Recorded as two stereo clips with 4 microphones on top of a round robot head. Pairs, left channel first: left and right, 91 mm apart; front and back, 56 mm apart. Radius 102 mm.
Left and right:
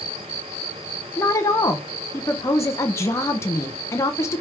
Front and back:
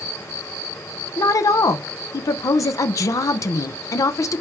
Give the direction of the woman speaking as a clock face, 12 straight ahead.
11 o'clock.